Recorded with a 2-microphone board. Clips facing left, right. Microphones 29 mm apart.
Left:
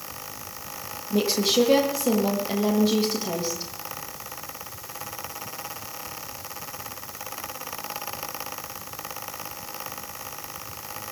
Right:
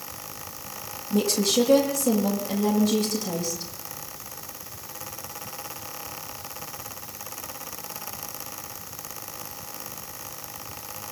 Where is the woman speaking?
30° left (ahead or behind), 9.5 m.